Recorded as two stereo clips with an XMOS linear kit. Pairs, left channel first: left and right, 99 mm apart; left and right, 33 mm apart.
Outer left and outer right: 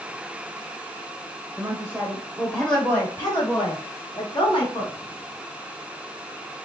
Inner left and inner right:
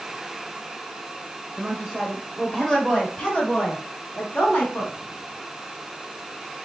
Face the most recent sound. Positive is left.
turn(degrees=60)  # may be behind; listen again after turning